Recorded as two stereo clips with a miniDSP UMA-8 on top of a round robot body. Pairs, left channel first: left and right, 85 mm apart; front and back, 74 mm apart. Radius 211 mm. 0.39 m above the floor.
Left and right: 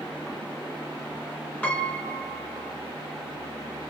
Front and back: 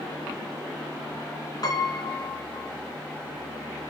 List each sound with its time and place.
1.6 s a piano: 15° left, 2 m